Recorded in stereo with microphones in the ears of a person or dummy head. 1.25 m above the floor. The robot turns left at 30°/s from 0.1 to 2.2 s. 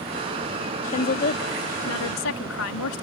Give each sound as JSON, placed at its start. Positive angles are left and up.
{"t": 0.9, "sound": "a woman speaking", "azimuth_deg": 140}